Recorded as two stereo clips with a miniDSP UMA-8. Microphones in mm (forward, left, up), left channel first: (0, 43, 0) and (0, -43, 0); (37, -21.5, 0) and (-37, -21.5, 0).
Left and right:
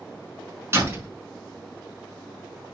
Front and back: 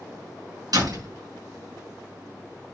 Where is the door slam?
155° right, 6 m.